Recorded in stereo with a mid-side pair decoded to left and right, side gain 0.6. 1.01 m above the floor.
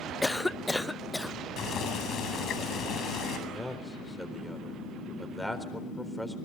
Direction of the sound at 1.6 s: 50° left.